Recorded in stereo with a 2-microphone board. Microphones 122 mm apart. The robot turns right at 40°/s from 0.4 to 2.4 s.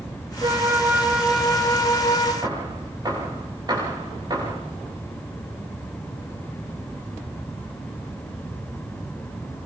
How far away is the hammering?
About 9.5 m.